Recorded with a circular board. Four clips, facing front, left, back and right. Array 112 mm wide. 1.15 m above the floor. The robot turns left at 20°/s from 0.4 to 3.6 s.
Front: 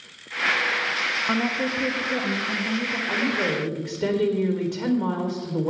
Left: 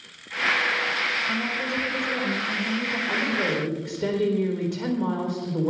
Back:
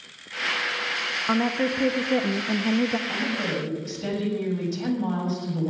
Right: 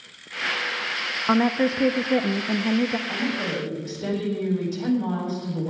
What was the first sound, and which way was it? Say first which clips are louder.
A woman speaking: right 8 dB, back 3 dB; 100° right.